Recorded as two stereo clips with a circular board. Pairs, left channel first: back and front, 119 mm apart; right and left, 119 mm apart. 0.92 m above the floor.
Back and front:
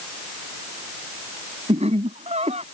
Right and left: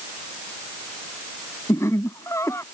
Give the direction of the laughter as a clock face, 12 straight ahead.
1 o'clock.